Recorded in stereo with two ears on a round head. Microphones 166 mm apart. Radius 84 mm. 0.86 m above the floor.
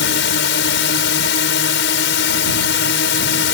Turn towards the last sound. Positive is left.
turn(degrees=65)  # may be behind; listen again after turning